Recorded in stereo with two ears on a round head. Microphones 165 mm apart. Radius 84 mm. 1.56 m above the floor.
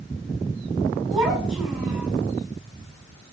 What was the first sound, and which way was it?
A child speaking, 5° right (ahead or behind).